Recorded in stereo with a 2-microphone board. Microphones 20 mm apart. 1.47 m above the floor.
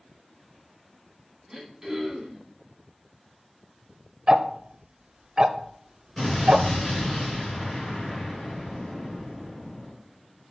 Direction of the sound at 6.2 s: 30° left (ahead or behind).